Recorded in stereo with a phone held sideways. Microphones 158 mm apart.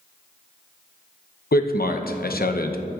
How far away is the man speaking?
About 0.7 m.